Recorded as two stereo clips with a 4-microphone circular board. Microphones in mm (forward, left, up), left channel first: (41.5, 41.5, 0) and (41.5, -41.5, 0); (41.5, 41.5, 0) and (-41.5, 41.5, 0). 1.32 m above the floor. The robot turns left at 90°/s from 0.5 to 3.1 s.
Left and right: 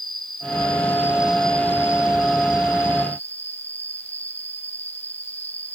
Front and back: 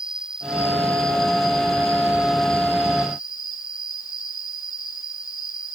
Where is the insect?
100° right; by 5.8 s 25° left.